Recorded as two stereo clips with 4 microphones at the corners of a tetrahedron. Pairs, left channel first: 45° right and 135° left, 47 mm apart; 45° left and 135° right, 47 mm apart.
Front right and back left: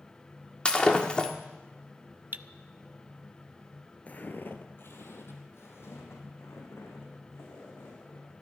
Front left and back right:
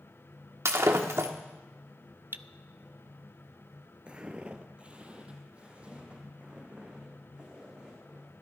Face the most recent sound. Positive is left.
turn(degrees=-70)